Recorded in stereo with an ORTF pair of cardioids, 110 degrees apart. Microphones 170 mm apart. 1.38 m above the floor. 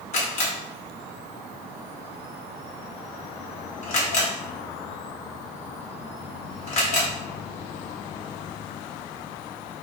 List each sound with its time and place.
0.1 s a camera shutter: 45° left, 1.1 m